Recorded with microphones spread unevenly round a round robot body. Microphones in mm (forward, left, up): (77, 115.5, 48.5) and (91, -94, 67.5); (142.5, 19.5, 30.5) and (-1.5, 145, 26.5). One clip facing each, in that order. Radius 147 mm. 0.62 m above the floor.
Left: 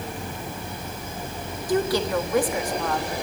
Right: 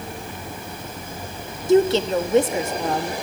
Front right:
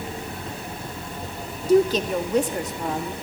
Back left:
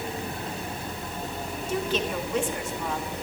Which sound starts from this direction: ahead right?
A woman speaking, at 1.7 s.